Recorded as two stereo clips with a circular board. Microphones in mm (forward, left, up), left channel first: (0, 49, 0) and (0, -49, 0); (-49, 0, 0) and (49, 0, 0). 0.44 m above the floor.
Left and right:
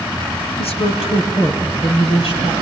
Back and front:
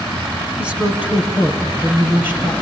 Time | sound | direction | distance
0.6 | a woman speaking | 80° left | 4 m